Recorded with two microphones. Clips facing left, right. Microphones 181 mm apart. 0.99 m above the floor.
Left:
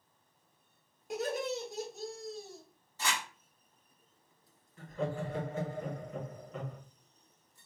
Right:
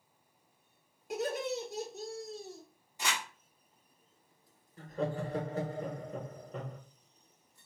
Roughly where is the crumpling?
Centre.